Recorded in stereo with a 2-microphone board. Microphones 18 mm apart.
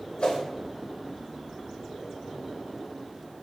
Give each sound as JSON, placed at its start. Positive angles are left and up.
{"t": 0.2, "sound": "a whoosh", "side_deg": 60, "distance_m": 1.4}